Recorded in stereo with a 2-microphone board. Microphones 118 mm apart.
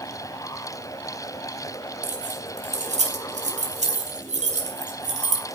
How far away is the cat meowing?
No cat meowing in this recording.